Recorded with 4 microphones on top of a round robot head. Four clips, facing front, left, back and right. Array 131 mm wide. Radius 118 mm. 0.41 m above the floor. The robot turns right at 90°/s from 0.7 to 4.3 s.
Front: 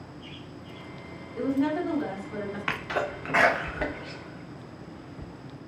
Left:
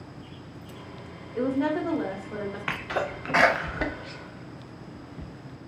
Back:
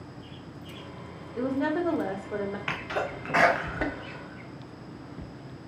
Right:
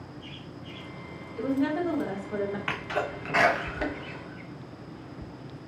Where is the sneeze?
20° left, 0.8 m; by 5.2 s 165° left, 0.8 m.